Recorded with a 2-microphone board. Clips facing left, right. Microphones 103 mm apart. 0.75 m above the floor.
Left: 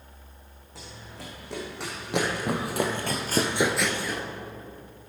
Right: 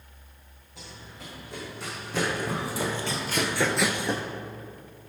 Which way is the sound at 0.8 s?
80° left.